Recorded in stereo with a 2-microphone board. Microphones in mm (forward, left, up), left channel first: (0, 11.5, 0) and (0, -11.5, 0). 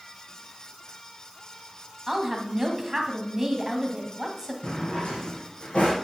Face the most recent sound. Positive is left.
turn(degrees=70)  # may be behind; listen again after turning